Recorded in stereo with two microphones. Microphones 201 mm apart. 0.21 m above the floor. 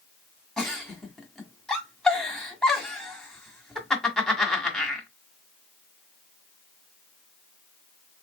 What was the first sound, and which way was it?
A giggle, centre (ahead or behind).